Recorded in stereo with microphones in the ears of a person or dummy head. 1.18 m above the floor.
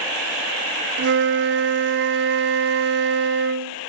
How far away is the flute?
About 0.6 m.